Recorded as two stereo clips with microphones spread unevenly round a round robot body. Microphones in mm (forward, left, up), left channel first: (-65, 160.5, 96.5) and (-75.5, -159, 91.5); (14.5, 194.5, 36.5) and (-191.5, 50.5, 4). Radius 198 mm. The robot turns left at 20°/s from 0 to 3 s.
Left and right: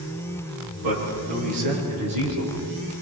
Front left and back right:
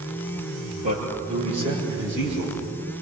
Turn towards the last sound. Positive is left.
turn(degrees=-125)